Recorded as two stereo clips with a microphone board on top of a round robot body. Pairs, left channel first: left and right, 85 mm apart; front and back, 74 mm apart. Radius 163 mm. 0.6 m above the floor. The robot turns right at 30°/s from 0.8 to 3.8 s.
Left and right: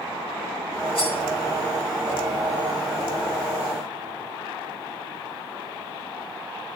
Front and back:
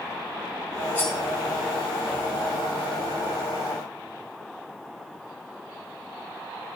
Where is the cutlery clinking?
70° left, 3 m; by 1.1 s 75° left, 3 m.